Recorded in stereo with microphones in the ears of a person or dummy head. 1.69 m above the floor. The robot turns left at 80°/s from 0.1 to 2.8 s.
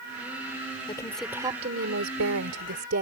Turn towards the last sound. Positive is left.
turn(degrees=-130)